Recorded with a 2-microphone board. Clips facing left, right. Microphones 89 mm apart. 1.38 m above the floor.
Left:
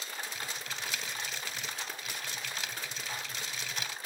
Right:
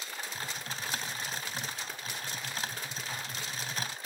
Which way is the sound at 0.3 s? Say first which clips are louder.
Right 1 dB; 40° right (ahead or behind).